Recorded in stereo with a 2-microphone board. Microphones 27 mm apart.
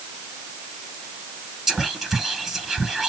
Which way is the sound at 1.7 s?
15° right (ahead or behind).